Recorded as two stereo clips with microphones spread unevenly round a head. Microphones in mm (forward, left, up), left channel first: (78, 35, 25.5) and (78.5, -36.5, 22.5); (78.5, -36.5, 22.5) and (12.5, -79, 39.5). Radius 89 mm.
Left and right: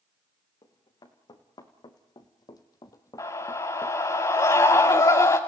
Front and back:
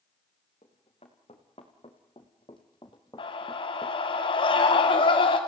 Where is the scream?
60° left, 1.9 m.